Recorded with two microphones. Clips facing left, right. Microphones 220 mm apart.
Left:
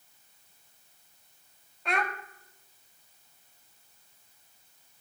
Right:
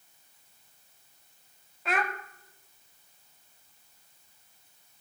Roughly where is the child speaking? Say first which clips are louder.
Right 1 dB; centre.